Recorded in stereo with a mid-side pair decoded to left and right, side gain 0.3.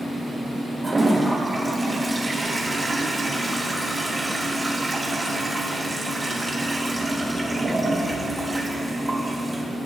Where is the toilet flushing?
30° right, 3 m.